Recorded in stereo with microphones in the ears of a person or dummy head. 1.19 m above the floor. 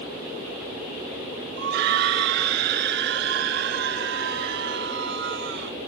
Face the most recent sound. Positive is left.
turn(degrees=-65)  # may be behind; listen again after turning